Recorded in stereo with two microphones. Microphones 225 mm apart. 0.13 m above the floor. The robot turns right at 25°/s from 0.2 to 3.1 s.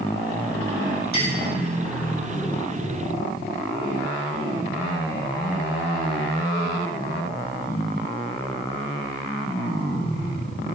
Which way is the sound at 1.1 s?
45° left (ahead or behind).